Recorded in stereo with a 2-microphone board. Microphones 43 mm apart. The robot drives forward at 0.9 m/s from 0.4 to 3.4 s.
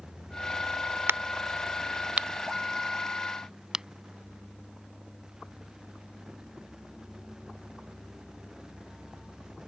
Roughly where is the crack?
Right.